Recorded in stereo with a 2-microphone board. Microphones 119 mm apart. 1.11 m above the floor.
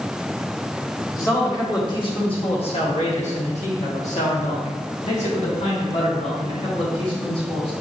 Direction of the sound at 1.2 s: 25° left (ahead or behind).